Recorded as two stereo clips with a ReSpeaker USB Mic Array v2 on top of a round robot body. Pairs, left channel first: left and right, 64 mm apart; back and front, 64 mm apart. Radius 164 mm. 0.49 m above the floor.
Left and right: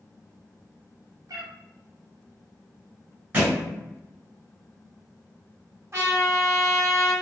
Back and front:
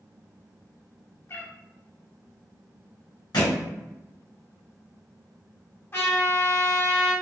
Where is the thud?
150° right, 1.5 m.